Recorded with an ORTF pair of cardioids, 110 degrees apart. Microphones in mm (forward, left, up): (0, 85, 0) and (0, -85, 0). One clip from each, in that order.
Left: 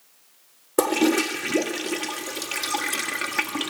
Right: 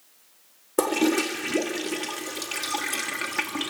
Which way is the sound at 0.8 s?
10° left.